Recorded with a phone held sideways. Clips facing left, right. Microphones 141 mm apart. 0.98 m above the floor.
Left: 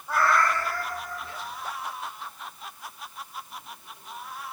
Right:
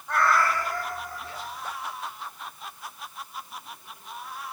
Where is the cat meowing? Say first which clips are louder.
Even; 10° left (ahead or behind), 1.1 m; by 1.5 s 40° right (ahead or behind), 1.6 m.